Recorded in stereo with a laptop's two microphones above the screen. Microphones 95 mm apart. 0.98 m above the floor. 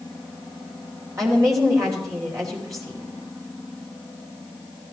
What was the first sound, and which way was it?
A woman speaking, 40° right (ahead or behind).